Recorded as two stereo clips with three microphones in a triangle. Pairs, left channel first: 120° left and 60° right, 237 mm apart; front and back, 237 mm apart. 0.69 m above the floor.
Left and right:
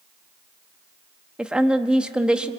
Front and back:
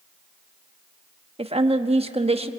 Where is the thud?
No thud in this recording.